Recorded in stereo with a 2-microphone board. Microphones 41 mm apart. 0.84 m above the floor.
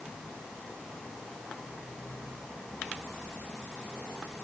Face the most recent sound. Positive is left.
No sound to turn to.